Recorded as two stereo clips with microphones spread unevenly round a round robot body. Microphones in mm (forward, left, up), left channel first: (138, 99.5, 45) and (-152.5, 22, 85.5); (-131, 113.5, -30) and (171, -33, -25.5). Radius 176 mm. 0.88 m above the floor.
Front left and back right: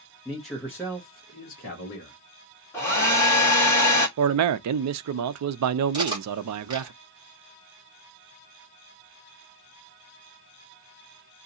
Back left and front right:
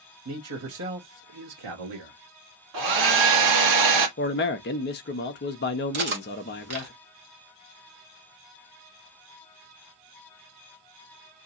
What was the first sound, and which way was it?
A man speaking, 75° right.